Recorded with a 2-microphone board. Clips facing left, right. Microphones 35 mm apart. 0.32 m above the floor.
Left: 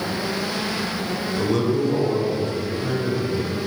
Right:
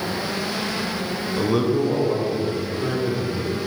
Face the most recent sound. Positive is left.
turn(degrees=-15)  # may be behind; listen again after turning